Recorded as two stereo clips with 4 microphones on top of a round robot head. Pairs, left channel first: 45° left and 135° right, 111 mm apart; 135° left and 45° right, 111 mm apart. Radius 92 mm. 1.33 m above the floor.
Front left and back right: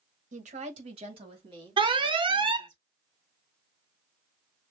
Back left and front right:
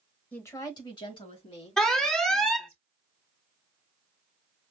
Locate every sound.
0.3 s a woman speaking: 145° right, 1.0 m; by 2.8 s 170° left, 4 m
1.8 s an alarm: 140° right, 0.8 m